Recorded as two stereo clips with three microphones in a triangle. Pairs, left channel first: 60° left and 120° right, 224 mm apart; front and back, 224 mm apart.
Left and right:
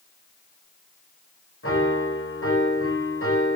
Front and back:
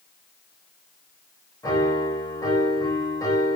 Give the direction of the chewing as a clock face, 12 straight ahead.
I don't hear chewing.